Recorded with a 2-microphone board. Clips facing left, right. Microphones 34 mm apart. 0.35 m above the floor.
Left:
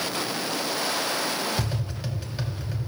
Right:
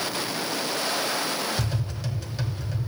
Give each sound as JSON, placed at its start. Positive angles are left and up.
{"t": 1.6, "sound": "tapping", "side_deg": 15, "distance_m": 2.5}